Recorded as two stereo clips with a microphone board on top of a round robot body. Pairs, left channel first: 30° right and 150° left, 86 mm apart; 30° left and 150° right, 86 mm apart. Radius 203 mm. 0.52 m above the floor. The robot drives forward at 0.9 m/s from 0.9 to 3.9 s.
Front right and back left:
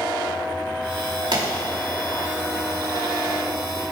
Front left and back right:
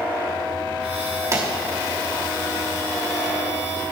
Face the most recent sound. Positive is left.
turn(degrees=170)